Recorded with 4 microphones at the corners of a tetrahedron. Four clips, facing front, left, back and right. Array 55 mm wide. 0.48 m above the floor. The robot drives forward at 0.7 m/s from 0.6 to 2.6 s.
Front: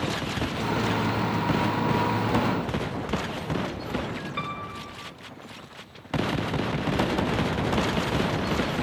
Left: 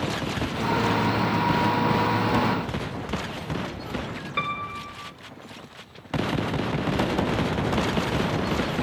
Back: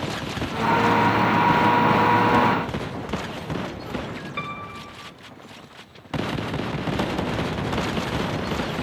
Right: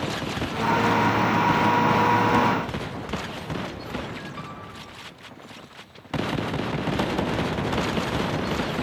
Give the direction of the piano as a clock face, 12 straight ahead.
9 o'clock.